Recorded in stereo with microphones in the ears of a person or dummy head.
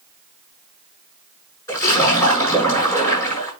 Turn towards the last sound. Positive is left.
turn(degrees=20)  # may be behind; listen again after turning